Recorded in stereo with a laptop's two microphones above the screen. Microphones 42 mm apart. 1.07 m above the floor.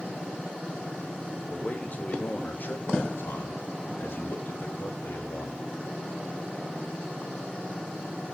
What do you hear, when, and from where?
1.5 s a man speaking: 35° left (ahead or behind), 2 m; by 5.6 s 75° left (ahead or behind), 3 m